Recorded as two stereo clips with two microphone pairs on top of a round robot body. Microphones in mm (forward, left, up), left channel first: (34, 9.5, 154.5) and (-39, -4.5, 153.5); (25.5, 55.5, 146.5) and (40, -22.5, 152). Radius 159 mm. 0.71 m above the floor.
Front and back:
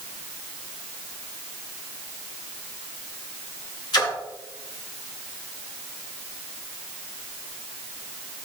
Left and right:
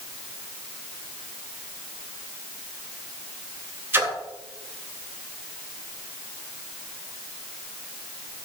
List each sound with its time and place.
3.9 s a splash: 15° right, 2 m